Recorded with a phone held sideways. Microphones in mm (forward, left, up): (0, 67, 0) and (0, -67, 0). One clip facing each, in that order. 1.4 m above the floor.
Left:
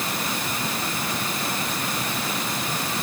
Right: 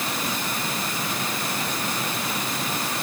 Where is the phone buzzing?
No phone buzzing in this recording.